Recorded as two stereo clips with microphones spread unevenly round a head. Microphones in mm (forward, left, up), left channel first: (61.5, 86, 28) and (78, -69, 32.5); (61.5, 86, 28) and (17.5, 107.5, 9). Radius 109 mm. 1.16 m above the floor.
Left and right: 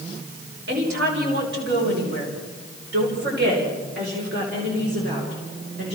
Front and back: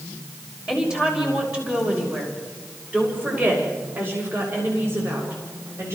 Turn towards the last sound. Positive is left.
turn(degrees=-140)